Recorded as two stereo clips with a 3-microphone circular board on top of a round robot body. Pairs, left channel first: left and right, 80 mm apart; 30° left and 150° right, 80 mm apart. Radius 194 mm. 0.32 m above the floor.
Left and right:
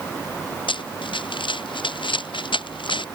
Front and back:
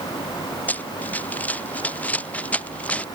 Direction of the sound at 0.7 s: 105° left.